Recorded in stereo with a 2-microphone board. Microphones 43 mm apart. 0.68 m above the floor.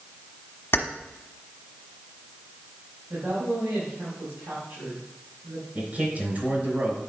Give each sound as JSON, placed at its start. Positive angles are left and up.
{"t": 0.7, "sound": "keys jangling", "side_deg": 65, "distance_m": 1.1}
{"t": 3.1, "sound": "a woman speaking", "side_deg": -65, "distance_m": 4.5}
{"t": 5.8, "sound": "a man speaking", "side_deg": -40, "distance_m": 3.5}